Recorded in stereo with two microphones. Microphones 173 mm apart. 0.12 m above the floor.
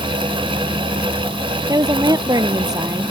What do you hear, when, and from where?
1.7 s a woman speaking: 20° right (ahead or behind)